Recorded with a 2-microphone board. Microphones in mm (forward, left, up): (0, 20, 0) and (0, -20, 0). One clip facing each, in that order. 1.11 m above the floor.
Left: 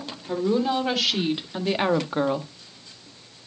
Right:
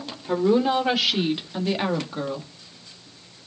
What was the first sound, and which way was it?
A woman speaking, 25° right (ahead or behind).